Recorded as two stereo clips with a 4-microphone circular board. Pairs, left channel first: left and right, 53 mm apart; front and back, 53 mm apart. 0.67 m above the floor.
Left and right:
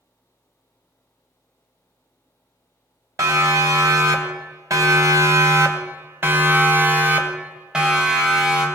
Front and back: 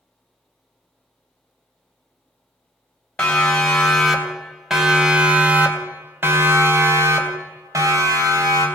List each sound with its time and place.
3.2 s a siren: 75° right, 3 m; by 8.7 s 175° right, 3 m